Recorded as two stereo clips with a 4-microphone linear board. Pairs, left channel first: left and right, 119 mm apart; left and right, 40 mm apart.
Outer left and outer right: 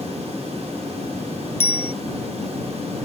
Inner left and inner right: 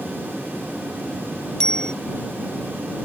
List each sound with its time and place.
1.6 s a bicycle bell: 20° left (ahead or behind)